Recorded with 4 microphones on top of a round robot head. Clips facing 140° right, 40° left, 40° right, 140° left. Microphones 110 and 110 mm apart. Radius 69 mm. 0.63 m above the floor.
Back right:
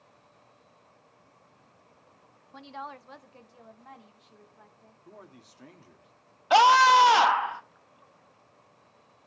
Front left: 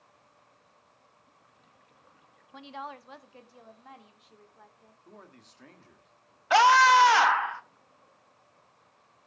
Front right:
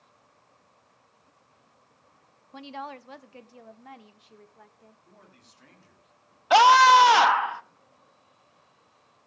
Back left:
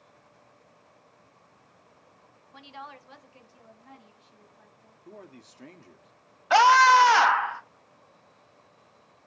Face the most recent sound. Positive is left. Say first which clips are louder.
# back right 1 dB, front right 2 dB
turn(degrees=-95)